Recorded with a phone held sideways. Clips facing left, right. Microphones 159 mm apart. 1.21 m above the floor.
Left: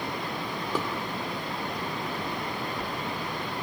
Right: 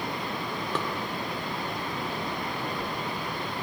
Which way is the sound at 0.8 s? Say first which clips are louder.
Left 2 dB; 10° left (ahead or behind).